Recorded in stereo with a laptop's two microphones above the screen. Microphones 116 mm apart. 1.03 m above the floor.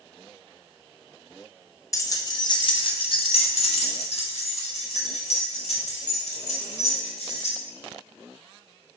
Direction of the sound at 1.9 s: 30° left (ahead or behind).